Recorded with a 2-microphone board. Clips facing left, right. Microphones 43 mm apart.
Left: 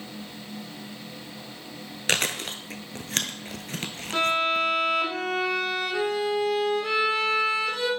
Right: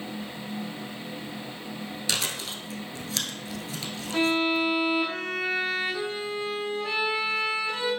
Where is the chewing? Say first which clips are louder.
Left 6 dB; 50° left (ahead or behind), 0.6 m.